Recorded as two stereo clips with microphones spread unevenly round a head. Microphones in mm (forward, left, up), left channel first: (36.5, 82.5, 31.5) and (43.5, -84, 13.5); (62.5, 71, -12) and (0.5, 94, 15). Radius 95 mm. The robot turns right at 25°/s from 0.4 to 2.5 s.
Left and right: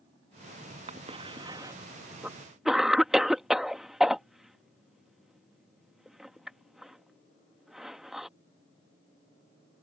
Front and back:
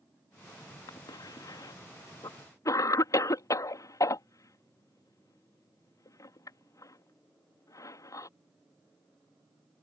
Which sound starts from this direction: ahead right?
A cough, at 0.9 s.